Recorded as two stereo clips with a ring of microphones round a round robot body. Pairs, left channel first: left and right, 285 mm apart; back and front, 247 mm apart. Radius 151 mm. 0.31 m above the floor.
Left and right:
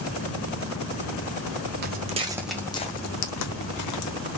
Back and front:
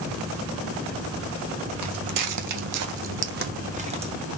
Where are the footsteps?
35° right, 1.0 m; by 4.1 s 70° left, 1.4 m.